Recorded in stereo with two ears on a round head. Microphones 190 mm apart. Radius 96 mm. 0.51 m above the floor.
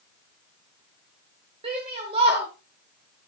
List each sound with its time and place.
1.6 s a shout: 25° right (ahead or behind), 1.7 m